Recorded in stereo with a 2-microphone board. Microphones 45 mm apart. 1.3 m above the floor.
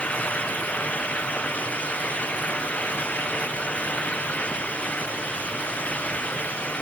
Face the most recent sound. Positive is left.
No sound to turn to.